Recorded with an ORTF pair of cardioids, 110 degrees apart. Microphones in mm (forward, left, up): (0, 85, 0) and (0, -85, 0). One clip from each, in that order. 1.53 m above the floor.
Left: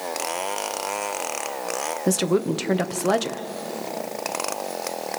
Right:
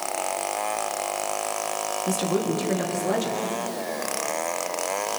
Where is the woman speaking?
60° left, 1.4 m.